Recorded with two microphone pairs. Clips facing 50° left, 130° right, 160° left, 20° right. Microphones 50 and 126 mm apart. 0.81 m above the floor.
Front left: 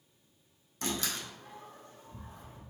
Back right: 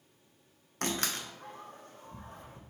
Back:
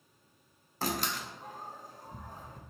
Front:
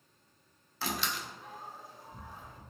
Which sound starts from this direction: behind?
A door slam, at 0.8 s.